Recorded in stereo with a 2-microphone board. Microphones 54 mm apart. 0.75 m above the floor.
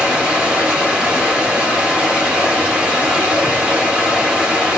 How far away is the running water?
About 4 m.